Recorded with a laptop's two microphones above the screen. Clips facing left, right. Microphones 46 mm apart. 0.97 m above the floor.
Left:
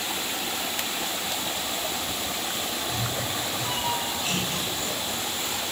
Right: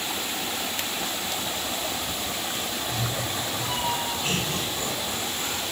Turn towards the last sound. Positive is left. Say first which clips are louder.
# right 1 dB
turn(degrees=-45)  # may be behind; listen again after turning